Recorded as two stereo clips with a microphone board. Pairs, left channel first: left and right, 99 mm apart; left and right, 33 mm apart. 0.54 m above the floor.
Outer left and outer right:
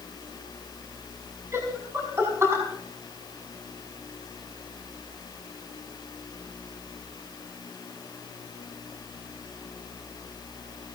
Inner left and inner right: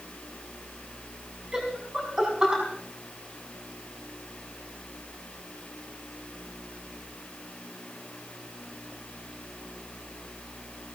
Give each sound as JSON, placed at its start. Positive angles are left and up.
{"t": 1.5, "sound": "laughter", "side_deg": -25, "distance_m": 5.5}